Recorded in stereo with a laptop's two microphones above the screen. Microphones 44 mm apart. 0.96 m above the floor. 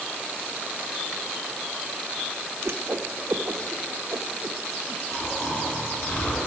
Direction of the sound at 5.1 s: 70° left (ahead or behind).